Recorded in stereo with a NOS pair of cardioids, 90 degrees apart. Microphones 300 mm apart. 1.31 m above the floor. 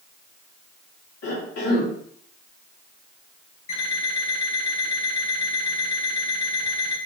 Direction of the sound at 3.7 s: 70° left.